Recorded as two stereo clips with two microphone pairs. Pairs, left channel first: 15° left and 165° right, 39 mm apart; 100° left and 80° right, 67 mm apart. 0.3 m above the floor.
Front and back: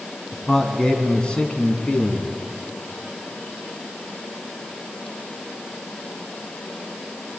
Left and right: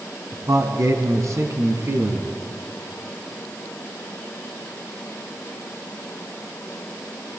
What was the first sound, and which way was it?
A man speaking, 65° right.